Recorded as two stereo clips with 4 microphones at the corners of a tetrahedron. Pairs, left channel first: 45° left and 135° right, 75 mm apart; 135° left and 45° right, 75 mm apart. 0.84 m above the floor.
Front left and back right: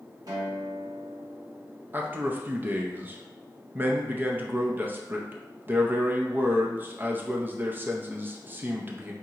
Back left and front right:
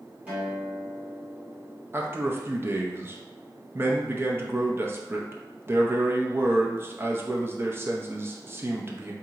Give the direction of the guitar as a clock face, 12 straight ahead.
4 o'clock.